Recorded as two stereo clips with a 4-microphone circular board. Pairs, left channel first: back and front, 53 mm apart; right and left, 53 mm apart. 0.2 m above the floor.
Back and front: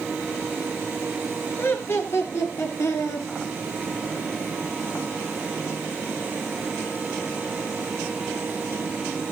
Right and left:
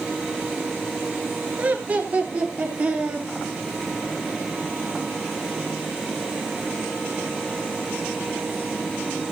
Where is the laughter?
145° left, 3.5 m; by 3.3 s 155° left, 5.5 m.